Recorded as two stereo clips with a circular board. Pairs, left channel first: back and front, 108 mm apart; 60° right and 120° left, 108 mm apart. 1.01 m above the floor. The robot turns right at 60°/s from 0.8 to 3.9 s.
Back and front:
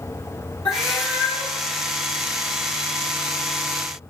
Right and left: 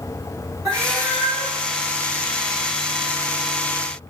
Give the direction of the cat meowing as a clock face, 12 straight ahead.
6 o'clock.